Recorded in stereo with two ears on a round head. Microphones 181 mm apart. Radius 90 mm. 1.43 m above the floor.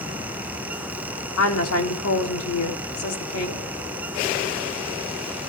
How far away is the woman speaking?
About 3 m.